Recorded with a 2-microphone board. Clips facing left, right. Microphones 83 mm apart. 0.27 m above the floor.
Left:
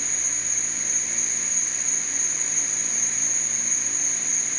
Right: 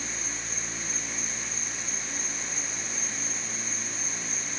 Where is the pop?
No pop in this recording.